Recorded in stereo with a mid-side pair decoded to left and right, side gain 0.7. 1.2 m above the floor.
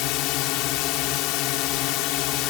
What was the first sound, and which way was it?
A drone, 65° left.